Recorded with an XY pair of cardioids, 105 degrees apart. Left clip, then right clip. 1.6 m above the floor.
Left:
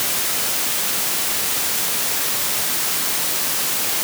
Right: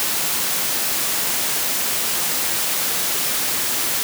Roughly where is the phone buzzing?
I don't hear a phone buzzing.